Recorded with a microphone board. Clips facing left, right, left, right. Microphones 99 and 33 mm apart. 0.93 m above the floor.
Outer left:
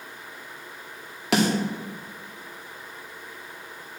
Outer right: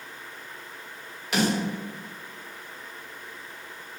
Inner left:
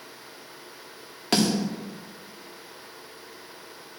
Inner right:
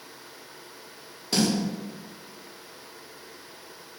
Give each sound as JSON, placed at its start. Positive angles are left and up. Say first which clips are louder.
{"t": 1.3, "sound": "a snare drum", "louder": "outer left 3 dB, inner left 2 dB", "side_deg": 80, "distance_m": 1.8}